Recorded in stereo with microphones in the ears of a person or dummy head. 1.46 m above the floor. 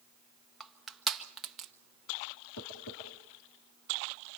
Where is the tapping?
70° left (ahead or behind), 6 m.